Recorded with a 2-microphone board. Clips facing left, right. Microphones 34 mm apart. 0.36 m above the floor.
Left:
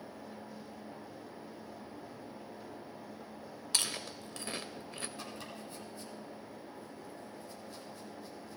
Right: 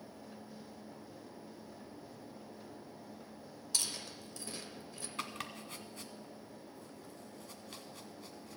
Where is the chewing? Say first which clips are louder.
Left 4 dB; 50° left (ahead or behind), 0.7 m.